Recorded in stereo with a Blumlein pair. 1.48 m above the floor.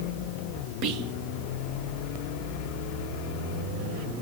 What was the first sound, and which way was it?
Whispering, 35° right.